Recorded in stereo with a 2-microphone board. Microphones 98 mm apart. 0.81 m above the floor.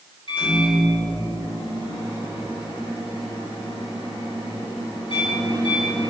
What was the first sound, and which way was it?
A microwave, 70° left (ahead or behind).